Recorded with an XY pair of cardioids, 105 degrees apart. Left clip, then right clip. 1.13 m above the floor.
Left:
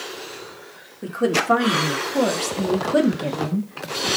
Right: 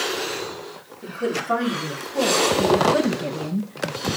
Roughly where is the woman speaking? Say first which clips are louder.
Left 5 dB; ahead left.